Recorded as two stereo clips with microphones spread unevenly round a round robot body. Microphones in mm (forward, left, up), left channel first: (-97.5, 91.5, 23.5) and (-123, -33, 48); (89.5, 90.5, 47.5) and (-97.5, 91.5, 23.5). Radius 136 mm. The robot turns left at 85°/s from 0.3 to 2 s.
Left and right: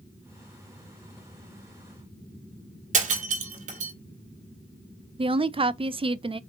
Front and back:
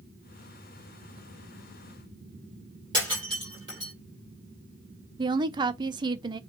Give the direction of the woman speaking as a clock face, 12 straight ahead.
5 o'clock.